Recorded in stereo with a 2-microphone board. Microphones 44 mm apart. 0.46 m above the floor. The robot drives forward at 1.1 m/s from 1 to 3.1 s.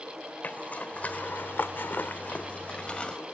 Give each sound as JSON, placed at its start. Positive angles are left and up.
{"t": 0.4, "sound": "a zipper", "side_deg": 35, "distance_m": 1.2}